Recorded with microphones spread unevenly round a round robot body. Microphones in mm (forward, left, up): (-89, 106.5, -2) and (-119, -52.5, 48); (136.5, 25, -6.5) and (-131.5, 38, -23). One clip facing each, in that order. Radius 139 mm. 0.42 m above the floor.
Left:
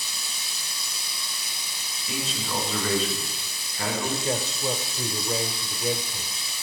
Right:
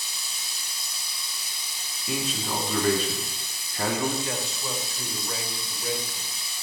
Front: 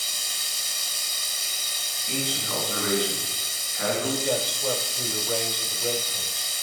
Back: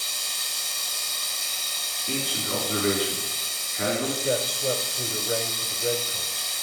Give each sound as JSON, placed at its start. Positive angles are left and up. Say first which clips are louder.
{"t": 0.0, "sound": "running water", "louder": "left 2 dB, back 1 dB", "azimuth_deg": 55, "distance_m": 1.8}
{"t": 2.1, "sound": "a man speaking", "louder": "right 2 dB, back 1 dB", "azimuth_deg": -125, "distance_m": 3.5}
{"t": 4.2, "sound": "a man speaking", "louder": "left 5 dB, back 1 dB", "azimuth_deg": 100, "distance_m": 1.0}